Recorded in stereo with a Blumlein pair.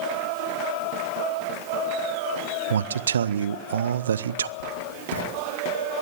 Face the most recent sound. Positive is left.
turn(degrees=65)